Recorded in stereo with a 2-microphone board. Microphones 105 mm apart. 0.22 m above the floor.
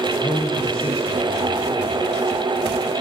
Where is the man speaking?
55° left (ahead or behind), 8 m.